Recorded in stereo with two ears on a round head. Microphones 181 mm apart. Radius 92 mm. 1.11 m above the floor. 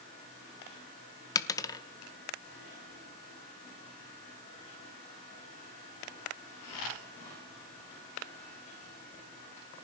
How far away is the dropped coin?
About 0.7 m.